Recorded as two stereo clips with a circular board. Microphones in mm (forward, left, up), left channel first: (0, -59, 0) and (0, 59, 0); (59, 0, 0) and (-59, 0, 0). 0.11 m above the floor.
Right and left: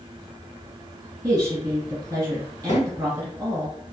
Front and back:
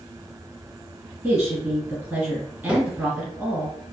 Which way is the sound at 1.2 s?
115° left.